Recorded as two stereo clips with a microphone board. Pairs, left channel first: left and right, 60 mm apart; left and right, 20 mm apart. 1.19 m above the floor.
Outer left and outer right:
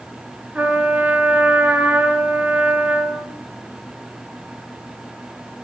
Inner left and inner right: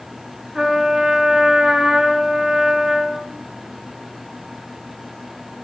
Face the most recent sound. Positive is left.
turn(degrees=-20)  # may be behind; listen again after turning